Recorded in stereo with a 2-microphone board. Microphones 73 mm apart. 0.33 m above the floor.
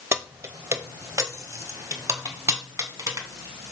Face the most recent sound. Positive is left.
turn(degrees=-45)  # may be behind; listen again after turning